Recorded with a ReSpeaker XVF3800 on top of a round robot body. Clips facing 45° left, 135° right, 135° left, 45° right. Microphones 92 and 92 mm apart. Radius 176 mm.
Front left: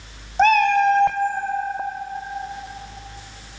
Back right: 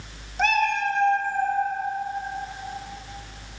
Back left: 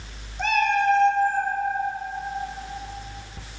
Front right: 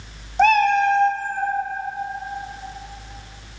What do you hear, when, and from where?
0.4 s a cat meowing: 15° right, 0.5 m; by 1.5 s 45° left, 1.1 m